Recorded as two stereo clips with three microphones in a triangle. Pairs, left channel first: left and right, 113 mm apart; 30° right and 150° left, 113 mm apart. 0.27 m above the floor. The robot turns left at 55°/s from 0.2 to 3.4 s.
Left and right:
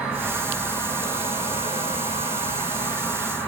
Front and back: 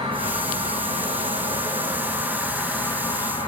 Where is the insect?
170° right, 0.9 m; by 3.5 s 10° left, 0.9 m.